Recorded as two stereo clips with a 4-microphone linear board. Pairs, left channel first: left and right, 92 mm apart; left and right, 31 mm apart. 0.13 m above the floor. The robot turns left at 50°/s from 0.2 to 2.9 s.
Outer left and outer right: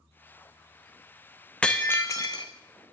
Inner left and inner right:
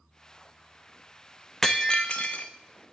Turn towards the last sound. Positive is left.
turn(degrees=105)